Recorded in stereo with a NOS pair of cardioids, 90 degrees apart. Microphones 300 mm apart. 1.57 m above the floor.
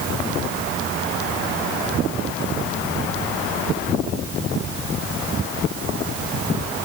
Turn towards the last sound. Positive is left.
No sound to turn to.